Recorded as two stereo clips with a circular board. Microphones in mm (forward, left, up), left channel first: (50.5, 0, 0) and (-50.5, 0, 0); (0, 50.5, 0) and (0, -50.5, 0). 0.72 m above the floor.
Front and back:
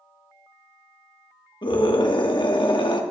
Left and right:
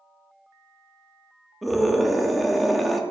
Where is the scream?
Straight ahead, 1.4 m.